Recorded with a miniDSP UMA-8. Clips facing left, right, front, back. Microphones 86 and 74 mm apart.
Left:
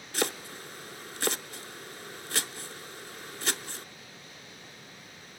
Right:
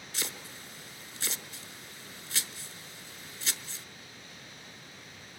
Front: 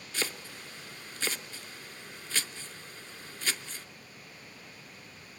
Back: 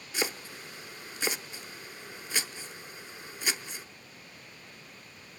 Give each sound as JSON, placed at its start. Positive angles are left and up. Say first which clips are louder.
{"t": 0.1, "sound": "chopping", "louder": "left 11 dB, back 3 dB", "azimuth_deg": 110, "distance_m": 0.5}